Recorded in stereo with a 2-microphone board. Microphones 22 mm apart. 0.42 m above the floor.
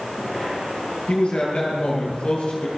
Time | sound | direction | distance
1.1 | a man speaking | 55° left (ahead or behind) | 10 m